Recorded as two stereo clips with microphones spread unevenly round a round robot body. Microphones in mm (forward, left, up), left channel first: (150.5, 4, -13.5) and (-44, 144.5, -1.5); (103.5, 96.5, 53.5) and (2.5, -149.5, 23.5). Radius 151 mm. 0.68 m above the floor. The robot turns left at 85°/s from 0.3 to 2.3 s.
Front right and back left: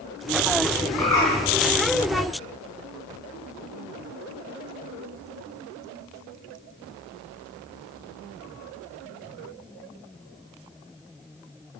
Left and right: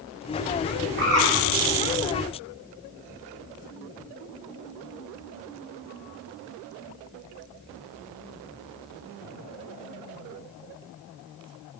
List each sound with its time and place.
1.0 s a bird: 65° right, 3 m; by 1.3 s 95° right, 3 m